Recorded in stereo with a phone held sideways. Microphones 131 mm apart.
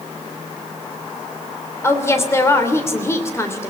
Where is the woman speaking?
20° left (ahead or behind), 3 m.